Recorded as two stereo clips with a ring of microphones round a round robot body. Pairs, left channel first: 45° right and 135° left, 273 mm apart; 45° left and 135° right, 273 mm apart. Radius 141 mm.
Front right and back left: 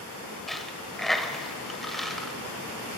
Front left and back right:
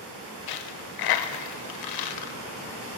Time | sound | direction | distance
0.5 | a dropped coin | 45° left | 0.8 m